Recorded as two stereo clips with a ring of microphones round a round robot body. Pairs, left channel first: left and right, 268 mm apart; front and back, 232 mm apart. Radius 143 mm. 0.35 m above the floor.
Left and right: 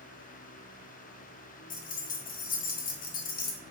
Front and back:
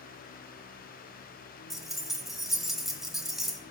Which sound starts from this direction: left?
Keys jangling, at 1.7 s.